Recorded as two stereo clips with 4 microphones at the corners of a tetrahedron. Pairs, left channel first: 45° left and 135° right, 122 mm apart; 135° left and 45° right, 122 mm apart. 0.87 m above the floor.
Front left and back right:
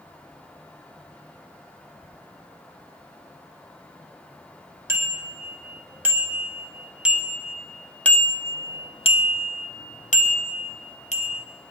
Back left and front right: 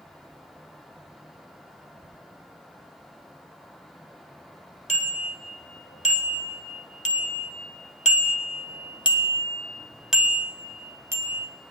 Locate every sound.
4.9 s a bicycle bell: 155° left, 2.5 m; by 11.5 s 20° left, 1.6 m